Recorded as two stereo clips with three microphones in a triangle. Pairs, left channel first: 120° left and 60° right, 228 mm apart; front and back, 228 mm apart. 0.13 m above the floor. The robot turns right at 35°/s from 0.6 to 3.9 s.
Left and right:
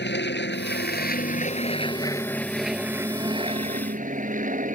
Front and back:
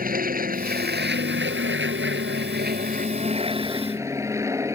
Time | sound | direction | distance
0.0 | an aircraft | 140° left | ?